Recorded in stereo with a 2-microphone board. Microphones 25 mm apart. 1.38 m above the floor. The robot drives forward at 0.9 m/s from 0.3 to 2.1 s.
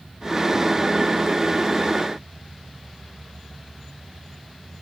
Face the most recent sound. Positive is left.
No sound to turn to.